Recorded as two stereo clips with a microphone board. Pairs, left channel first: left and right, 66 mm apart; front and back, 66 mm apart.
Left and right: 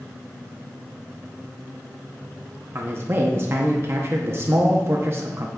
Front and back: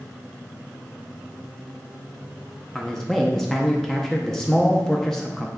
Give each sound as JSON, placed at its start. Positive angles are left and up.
{"t": 2.8, "sound": "a man speaking", "azimuth_deg": -85, "distance_m": 0.8}